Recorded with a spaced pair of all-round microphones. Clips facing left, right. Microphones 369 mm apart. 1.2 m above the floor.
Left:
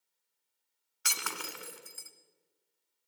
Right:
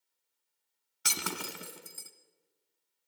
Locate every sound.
1.1 s breaking glass: 50° right (ahead or behind), 2 m